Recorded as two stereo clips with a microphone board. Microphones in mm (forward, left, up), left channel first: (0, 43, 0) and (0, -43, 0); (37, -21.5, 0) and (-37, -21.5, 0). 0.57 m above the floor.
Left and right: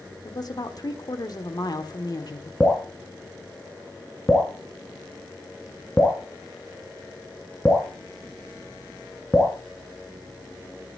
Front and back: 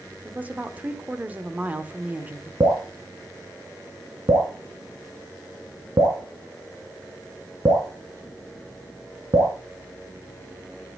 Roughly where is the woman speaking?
Behind left.